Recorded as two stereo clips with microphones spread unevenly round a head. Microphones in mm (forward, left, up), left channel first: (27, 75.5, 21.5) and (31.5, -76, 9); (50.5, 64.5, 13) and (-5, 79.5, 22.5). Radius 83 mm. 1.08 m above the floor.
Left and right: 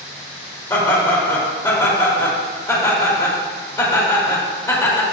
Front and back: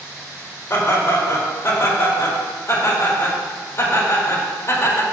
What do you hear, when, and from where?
0.7 s laughter: 25° left, 4 m